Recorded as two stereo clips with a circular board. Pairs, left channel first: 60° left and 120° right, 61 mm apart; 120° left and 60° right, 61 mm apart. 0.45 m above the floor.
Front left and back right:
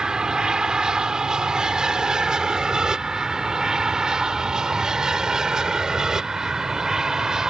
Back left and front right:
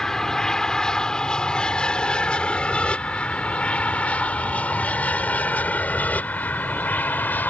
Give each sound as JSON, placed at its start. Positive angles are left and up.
{"t": 0.0, "sound": "an aircraft", "azimuth_deg": -175}